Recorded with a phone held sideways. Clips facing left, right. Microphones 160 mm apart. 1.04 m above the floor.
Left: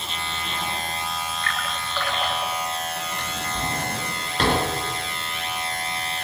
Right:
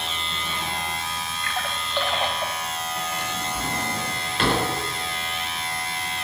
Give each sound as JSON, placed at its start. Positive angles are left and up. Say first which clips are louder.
{"t": 1.4, "sound": "a splash", "louder": "even", "side_deg": -20, "distance_m": 3.0}
{"t": 3.2, "sound": "a drawer", "louder": "even", "side_deg": 40, "distance_m": 5.0}